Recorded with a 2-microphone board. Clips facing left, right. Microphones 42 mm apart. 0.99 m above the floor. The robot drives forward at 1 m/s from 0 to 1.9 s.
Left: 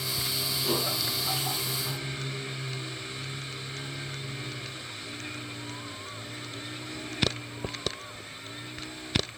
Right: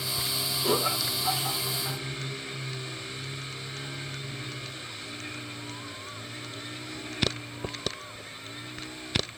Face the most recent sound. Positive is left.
turn(degrees=-55)  # may be behind; listen again after turning